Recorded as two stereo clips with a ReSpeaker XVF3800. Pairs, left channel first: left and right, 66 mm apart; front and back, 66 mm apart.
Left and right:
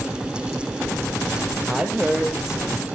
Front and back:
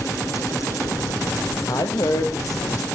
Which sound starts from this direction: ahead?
A woman speaking, at 1.7 s.